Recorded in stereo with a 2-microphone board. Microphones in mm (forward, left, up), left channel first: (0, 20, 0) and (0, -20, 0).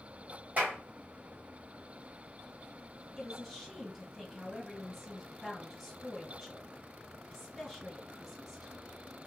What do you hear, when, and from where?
0.6 s a clap: 40° right (ahead or behind), 1.5 m
3.2 s a woman speaking: centre (ahead or behind), 1.8 m